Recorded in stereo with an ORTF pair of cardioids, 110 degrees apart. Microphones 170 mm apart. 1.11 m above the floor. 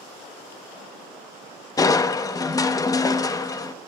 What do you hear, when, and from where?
1.8 s crushing: 20° left, 0.9 m